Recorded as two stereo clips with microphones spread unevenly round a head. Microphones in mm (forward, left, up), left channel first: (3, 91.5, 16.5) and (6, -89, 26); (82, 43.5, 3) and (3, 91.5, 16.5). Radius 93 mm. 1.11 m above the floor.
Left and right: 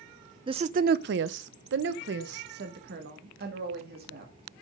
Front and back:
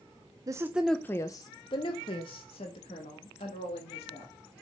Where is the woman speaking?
150° right, 0.5 m; by 4.6 s 50° right, 2.5 m.